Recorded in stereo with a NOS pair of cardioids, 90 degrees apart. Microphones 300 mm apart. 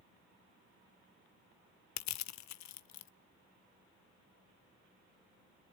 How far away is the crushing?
About 0.7 m.